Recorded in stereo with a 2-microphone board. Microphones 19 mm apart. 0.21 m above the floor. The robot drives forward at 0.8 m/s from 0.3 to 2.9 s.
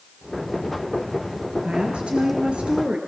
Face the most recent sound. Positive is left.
turn(degrees=-70)  # may be behind; listen again after turning